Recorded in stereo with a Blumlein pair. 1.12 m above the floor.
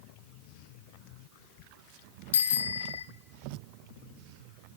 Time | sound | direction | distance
2.3 | a bicycle bell | 65° left | 2 m